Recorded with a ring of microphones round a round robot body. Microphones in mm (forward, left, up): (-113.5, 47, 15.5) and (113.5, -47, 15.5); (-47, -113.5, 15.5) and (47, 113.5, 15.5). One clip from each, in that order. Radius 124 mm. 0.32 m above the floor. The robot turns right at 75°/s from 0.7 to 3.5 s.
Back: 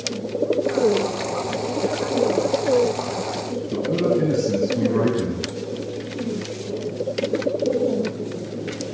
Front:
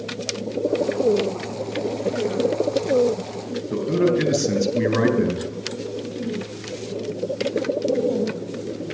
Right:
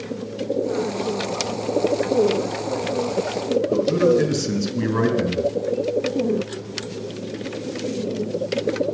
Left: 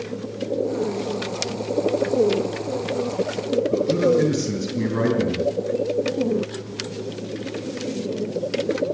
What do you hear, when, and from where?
3.7 s a man speaking: 40° right, 3 m